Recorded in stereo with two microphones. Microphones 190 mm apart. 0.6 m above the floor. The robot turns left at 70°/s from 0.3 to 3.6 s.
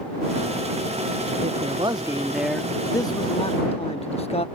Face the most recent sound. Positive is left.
turn(degrees=105)